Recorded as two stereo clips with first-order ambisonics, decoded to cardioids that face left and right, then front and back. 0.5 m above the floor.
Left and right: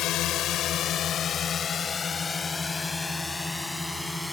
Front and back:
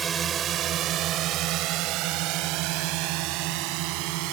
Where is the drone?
120° left; by 4.3 s straight behind.